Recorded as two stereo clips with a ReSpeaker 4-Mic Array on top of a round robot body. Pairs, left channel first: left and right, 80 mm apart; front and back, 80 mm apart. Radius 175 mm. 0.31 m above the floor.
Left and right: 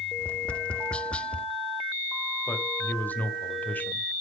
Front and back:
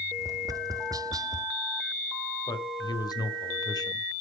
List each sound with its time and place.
0.2 s tapping: 160° left, 0.7 m
2.5 s a man speaking: 25° left, 1.9 m